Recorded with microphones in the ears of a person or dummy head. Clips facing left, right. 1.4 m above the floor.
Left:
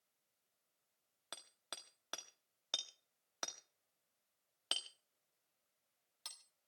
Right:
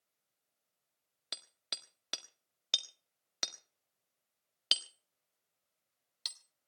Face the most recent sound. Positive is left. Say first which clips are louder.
# right 2 dB
turn(degrees=-25)  # may be behind; listen again after turning